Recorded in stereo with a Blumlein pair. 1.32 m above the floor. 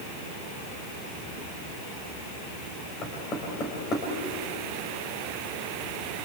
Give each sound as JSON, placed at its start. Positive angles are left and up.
{"t": 3.0, "sound": "knocking", "azimuth_deg": 25, "distance_m": 6.0}